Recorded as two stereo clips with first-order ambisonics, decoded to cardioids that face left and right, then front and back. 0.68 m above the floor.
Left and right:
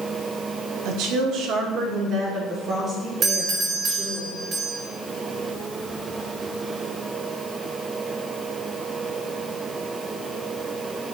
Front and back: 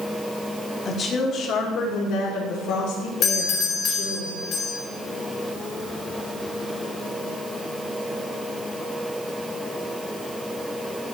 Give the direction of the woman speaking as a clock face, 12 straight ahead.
2 o'clock.